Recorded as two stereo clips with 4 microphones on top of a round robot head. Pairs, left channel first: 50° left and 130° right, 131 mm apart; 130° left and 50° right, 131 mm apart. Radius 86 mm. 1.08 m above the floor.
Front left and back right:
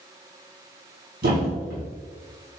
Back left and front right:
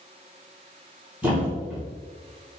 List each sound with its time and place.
1.2 s a thud: 130° right, 3 m